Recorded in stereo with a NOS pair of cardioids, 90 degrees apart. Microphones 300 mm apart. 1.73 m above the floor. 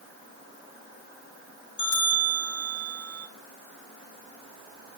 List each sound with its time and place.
1.8 s a bell: 15° left, 4 m